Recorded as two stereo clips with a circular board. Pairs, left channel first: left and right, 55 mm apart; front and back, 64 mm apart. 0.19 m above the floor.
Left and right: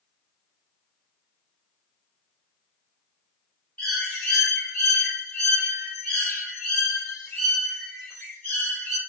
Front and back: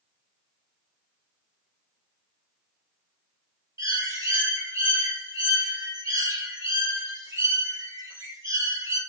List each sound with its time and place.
3.8 s a bird: 155° left, 2 m